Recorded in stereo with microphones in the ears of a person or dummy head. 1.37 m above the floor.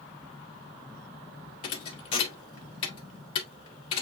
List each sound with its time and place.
0.0 s a fan: 5° left (ahead or behind), 1.2 m
1.6 s a thud: 25° left (ahead or behind), 1.0 m